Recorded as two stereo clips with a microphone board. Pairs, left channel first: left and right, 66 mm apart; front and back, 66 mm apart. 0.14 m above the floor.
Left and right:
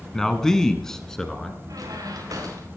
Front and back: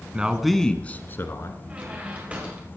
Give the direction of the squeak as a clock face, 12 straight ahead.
4 o'clock.